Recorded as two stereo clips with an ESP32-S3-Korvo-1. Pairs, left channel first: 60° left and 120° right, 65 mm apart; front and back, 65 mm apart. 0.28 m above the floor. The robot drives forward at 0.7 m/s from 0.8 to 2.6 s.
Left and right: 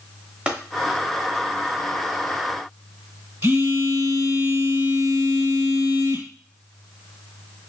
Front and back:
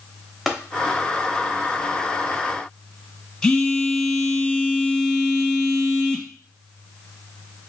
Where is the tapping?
100° right, 0.7 m.